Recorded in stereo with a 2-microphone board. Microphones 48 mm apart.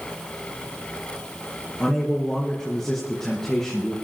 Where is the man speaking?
10° left (ahead or behind), 3 m.